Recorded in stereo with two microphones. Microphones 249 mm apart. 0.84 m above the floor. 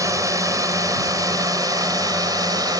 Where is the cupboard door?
I don't hear a cupboard door.